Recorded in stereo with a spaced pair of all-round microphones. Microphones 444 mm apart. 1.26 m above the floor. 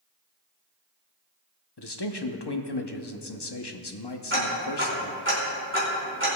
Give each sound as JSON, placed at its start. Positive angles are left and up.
{"t": 1.8, "sound": "a man speaking", "side_deg": 60, "distance_m": 0.9}
{"t": 4.3, "sound": "ticking", "side_deg": -25, "distance_m": 3.5}